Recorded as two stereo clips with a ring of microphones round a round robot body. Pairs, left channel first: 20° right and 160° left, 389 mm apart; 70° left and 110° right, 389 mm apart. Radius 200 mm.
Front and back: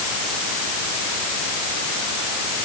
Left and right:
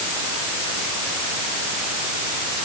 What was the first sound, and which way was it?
Only background noise.